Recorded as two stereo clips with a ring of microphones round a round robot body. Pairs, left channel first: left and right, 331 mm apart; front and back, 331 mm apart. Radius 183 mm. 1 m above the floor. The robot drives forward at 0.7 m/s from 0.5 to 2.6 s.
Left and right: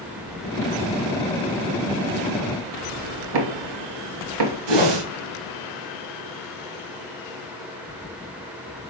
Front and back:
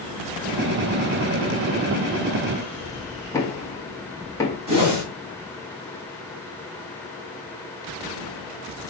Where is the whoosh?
105° right, 3 m.